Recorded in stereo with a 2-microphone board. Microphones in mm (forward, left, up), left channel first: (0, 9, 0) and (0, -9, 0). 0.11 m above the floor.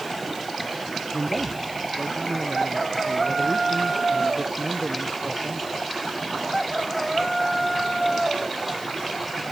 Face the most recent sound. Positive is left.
turn(degrees=-45)  # may be behind; listen again after turning